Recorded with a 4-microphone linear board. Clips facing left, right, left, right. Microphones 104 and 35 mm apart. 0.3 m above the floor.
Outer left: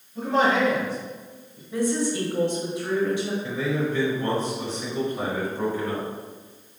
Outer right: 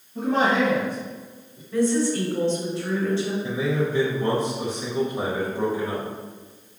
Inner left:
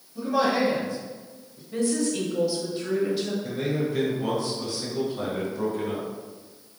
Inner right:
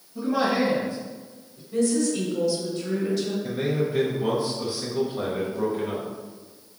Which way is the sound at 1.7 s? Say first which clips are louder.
Outer right 3 dB, inner right 2 dB; 15° left (ahead or behind).